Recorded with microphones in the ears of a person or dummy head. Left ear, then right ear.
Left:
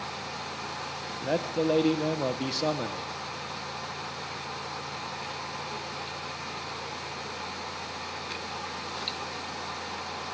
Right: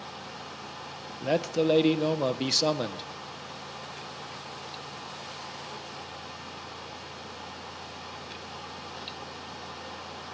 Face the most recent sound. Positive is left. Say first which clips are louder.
# right 2 dB
turn(degrees=-10)  # may be behind; listen again after turning